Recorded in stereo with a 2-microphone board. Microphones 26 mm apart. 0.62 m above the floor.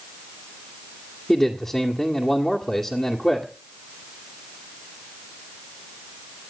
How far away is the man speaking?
About 2.0 m.